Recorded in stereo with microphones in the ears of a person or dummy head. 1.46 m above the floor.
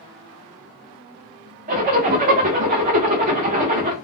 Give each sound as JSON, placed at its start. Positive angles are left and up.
{"t": 1.7, "sound": "a zipper", "side_deg": -35, "distance_m": 0.7}